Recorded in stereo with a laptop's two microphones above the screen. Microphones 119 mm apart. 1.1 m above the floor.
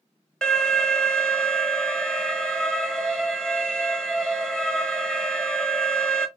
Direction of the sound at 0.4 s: 5° left (ahead or behind).